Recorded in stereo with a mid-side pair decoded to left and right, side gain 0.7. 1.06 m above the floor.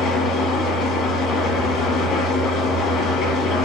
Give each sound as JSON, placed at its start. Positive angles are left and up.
{"t": 0.0, "sound": "an engine running", "azimuth_deg": 45, "distance_m": 3.5}